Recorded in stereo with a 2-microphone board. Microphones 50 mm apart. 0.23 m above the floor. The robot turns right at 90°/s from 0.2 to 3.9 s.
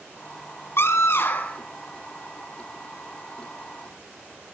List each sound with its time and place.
0.8 s a scream: 75° left, 2.5 m; by 1.6 s 150° left, 2.5 m